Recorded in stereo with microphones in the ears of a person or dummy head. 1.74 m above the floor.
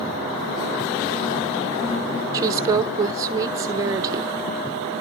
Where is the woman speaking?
20° right (ahead or behind), 1.1 m.